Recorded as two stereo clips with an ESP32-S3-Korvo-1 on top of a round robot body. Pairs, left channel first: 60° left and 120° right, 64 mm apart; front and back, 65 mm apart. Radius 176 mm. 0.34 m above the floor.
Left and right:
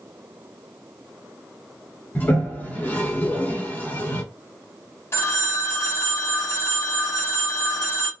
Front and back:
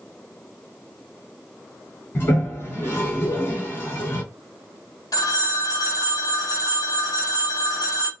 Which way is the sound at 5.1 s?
15° left.